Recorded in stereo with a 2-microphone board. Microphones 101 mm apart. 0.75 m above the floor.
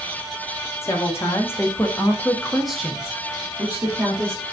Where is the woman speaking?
25° left (ahead or behind), 1.6 m; by 4.4 s 20° right (ahead or behind), 1.9 m.